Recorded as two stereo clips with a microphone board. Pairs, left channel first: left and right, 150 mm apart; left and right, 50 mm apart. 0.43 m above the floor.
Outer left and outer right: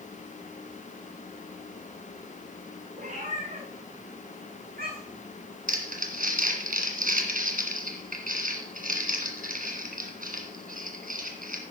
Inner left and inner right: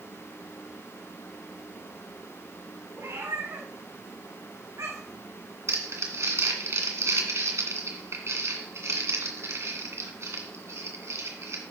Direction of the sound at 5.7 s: 70° right (ahead or behind).